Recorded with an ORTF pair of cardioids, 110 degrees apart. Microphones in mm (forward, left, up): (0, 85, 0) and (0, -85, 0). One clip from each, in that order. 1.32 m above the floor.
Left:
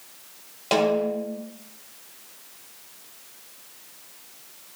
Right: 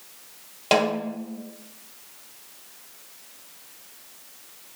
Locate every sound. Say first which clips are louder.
0.7 s a snare drum: left 1 dB; 20° right, 0.5 m